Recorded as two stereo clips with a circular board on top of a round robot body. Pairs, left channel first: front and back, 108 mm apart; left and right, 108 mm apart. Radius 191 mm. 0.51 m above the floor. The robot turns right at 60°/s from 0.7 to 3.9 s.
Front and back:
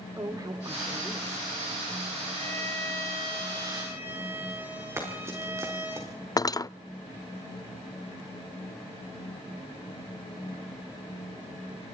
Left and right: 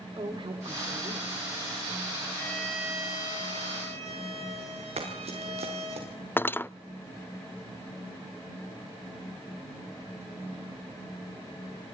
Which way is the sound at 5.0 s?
115° right.